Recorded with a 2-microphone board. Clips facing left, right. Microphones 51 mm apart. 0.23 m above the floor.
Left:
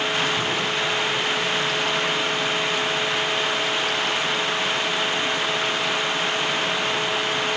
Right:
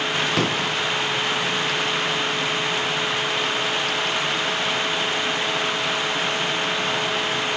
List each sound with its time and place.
0.4 s a pop: 75° right (ahead or behind), 5 m